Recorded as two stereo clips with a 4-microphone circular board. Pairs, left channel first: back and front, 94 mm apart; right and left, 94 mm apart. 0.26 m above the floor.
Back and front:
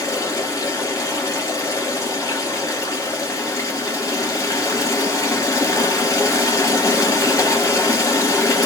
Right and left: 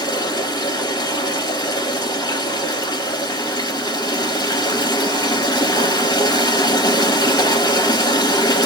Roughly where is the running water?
Behind right.